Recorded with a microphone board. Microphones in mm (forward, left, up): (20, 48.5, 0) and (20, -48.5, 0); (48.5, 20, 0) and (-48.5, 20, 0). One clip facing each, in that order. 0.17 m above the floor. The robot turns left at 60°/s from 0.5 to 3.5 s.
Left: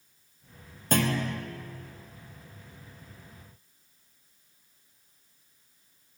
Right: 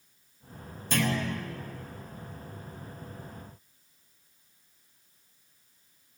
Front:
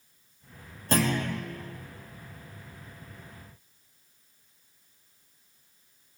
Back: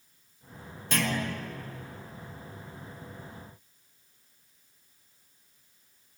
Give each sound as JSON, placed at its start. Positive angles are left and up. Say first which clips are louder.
{"t": 0.9, "sound": "a clunk", "louder": "left 2 dB, front 4 dB", "azimuth_deg": 50, "distance_m": 1.8}